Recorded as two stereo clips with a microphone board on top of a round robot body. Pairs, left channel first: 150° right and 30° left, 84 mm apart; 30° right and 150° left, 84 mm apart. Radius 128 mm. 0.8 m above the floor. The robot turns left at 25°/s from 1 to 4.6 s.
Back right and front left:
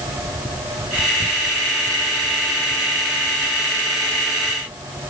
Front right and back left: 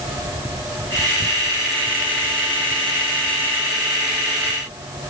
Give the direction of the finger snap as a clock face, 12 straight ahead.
No finger snap in this recording.